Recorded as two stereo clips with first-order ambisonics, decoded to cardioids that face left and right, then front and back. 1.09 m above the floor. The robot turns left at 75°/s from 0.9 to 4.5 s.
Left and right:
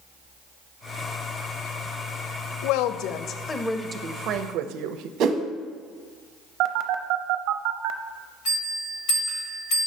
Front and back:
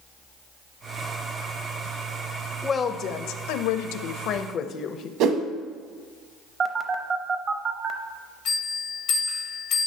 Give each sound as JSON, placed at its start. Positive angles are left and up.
{"t": 2.6, "sound": "a woman speaking", "azimuth_deg": 85, "distance_m": 0.5}
{"t": 5.2, "sound": "a whoosh", "azimuth_deg": -140, "distance_m": 0.7}
{"t": 6.6, "sound": "a phone buzzing", "azimuth_deg": -115, "distance_m": 0.5}
{"t": 8.4, "sound": "a bell", "azimuth_deg": 45, "distance_m": 2.5}